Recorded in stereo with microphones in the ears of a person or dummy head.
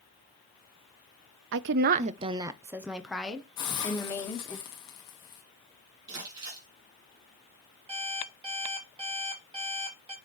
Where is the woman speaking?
65° right (ahead or behind), 0.5 m; by 4.6 s 15° left (ahead or behind), 1.5 m.